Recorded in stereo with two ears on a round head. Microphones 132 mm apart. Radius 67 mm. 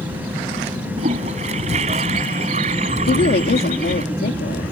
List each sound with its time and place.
1.0 s a toilet flushing: 45° right (ahead or behind)
3.1 s a woman speaking: 75° left (ahead or behind)